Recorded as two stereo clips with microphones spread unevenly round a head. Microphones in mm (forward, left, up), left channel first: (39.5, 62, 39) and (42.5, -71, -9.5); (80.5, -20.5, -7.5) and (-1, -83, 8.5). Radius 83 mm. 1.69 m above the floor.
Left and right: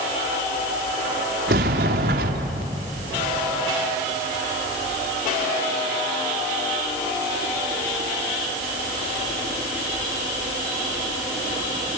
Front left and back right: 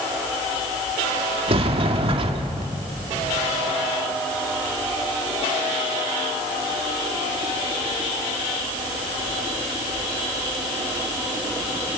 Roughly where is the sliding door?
Behind right.